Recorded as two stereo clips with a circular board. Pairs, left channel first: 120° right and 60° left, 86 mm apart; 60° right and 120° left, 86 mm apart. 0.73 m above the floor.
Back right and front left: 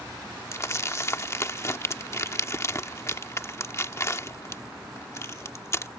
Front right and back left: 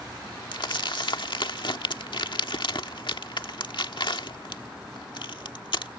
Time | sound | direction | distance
0.5 | crumpling | 70° right | ?